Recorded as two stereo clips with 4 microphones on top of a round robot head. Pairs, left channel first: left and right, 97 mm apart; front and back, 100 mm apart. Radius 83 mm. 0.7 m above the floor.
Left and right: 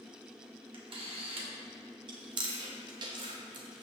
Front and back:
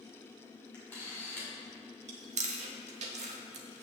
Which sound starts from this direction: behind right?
Chewing, at 2.1 s.